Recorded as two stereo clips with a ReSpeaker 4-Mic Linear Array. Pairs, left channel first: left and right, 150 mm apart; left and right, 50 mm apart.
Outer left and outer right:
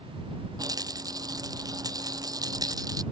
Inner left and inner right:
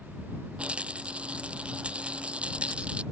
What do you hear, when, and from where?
0.6 s a rattle: 25° right (ahead or behind)